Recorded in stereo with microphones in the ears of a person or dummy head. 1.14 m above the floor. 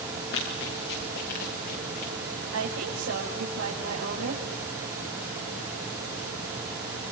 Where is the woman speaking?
75° right (ahead or behind), 6 m.